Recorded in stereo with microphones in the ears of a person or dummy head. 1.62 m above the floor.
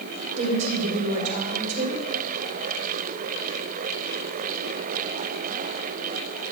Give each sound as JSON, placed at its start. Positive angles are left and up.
{"t": 0.4, "sound": "a woman speaking", "side_deg": -35, "distance_m": 4.0}